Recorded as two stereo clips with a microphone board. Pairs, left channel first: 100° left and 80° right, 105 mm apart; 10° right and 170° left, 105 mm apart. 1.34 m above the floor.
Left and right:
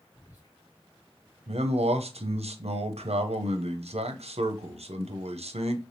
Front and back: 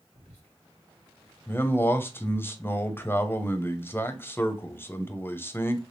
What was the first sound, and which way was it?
Whispering, 160° left.